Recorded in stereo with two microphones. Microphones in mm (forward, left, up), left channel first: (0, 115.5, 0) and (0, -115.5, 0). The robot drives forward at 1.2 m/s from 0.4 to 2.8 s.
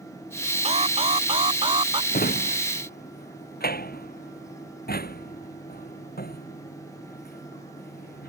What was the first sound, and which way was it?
An alarm, 25° right (ahead or behind).